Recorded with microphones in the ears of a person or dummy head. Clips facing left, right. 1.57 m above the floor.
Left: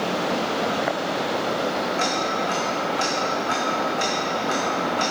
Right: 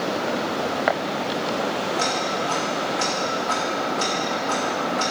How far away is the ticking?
About 1.5 m.